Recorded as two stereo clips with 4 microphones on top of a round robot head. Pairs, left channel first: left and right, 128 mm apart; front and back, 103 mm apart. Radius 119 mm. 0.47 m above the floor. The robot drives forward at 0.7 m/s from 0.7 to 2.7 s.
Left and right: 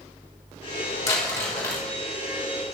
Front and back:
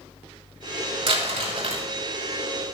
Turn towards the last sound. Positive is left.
turn(degrees=165)